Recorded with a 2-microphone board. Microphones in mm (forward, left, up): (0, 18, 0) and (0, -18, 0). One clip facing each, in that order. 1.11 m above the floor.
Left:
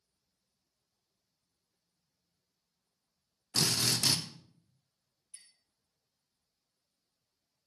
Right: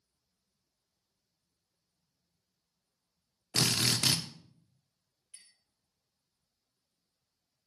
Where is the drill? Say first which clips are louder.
Right 2 dB; 45° right (ahead or behind), 0.9 m.